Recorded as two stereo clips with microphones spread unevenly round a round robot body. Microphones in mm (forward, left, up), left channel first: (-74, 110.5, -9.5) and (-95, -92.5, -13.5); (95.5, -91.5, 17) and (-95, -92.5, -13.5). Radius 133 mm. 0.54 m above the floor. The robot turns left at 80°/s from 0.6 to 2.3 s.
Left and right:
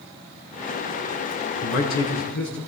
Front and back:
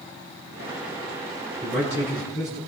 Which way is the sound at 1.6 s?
105° left.